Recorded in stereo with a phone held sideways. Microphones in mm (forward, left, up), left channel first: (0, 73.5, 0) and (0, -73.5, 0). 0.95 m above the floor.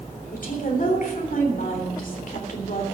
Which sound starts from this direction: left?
A woman speaking, at 0.3 s.